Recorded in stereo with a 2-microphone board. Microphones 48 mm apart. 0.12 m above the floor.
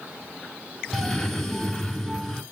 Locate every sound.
0.9 s a cough: 5° left (ahead or behind), 1.8 m